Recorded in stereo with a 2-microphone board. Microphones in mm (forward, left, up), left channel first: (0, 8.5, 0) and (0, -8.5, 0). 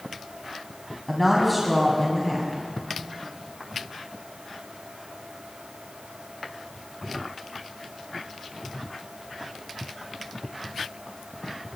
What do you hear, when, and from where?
1.1 s a woman speaking: 5° left (ahead or behind), 2.0 m